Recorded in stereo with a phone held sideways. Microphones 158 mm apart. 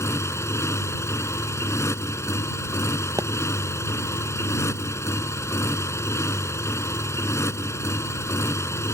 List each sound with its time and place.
0.0 s a motorcycle: 15° left (ahead or behind)
3.2 s a pop: 20° right (ahead or behind)